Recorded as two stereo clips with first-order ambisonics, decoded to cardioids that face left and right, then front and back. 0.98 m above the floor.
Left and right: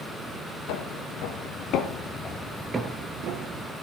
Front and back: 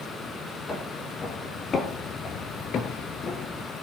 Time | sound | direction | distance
0.7 | footsteps | 75° left | 2.5 m